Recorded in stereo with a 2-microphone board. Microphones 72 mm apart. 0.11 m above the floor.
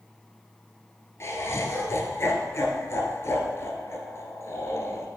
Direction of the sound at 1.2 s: 40° left (ahead or behind).